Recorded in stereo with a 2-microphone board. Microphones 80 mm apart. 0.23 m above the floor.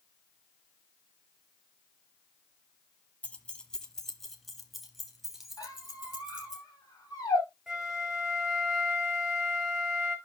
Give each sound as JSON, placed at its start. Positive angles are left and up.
{"t": 3.2, "sound": "keys jangling", "side_deg": 15, "distance_m": 0.9}
{"t": 5.6, "sound": "a squeak", "side_deg": 45, "distance_m": 6.0}
{"t": 7.7, "sound": "a flute", "side_deg": -10, "distance_m": 1.5}